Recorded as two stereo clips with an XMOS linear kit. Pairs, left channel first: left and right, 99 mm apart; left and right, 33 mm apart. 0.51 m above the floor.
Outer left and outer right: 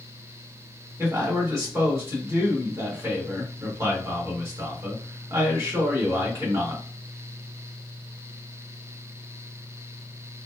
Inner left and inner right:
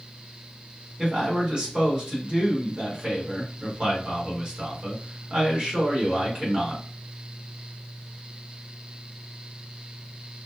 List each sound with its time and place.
1.0 s a man speaking: 30° right (ahead or behind), 1.6 m